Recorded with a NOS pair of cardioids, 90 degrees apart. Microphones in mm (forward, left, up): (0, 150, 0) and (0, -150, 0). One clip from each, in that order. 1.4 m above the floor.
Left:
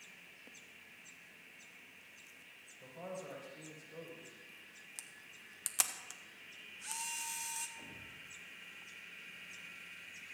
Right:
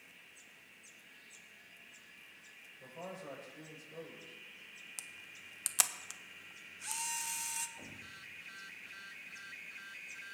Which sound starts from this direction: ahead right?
A thud, at 7.8 s.